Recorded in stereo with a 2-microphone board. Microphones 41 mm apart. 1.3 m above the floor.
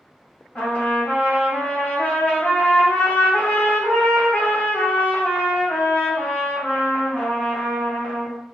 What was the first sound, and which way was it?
A trumpet, 35° left (ahead or behind).